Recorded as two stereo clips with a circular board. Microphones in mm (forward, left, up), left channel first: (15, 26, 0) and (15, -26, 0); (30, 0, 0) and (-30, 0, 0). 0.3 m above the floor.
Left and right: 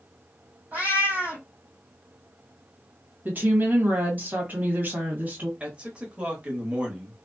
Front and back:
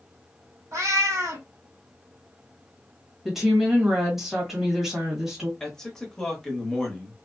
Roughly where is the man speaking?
Ahead right.